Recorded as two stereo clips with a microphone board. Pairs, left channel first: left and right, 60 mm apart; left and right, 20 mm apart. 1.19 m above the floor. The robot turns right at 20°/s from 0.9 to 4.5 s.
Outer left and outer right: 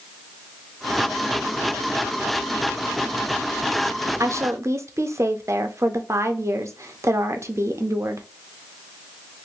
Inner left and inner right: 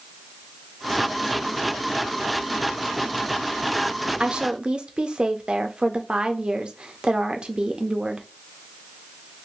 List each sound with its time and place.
4.2 s a woman speaking: 55° right (ahead or behind), 0.6 m; by 8.3 s 50° right (ahead or behind), 0.6 m